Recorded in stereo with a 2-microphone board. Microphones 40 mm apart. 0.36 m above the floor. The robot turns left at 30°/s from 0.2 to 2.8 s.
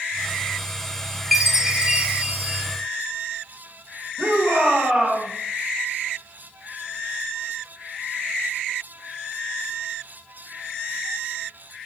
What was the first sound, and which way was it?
A chime, 5° right.